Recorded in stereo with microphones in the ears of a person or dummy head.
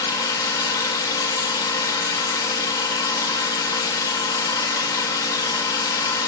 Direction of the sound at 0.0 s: 20° left (ahead or behind).